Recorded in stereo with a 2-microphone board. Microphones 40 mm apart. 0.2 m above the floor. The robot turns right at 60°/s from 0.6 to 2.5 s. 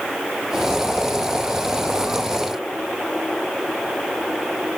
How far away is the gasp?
No gasp in this recording.